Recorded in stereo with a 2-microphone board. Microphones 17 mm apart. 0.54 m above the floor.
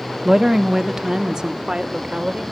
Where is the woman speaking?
20° right (ahead or behind), 0.7 m; by 2.4 s 55° right (ahead or behind), 1.5 m.